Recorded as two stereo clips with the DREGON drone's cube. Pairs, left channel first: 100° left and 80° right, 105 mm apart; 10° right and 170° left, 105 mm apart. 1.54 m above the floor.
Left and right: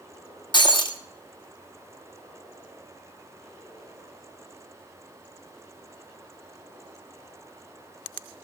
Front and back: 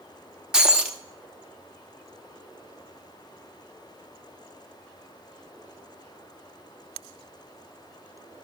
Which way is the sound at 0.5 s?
90° left.